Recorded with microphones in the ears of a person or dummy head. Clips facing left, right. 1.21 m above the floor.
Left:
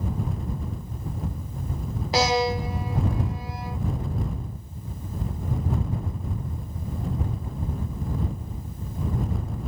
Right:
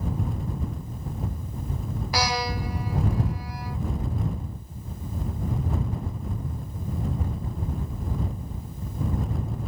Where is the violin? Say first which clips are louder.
Left 6 dB; 20° left (ahead or behind).